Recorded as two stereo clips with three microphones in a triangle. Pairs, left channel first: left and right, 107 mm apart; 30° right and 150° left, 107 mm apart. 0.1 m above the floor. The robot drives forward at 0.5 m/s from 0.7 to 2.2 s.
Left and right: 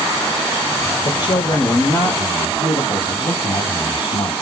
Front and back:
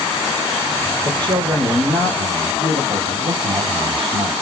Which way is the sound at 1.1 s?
120° left.